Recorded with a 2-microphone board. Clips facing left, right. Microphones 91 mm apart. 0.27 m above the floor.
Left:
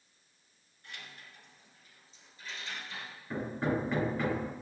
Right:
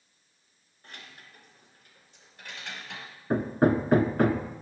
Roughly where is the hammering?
Right.